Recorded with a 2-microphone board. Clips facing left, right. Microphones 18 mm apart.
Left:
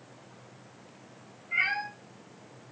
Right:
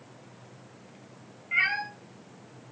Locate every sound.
1.5 s a cat meowing: 25° right (ahead or behind), 1.3 m